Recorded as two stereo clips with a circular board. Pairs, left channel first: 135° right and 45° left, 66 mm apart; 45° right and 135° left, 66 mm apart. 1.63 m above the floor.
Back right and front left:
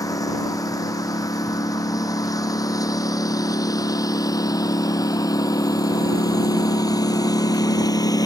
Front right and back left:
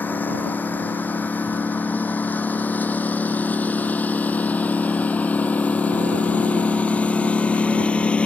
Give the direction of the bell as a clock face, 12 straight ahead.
I don't hear a bell.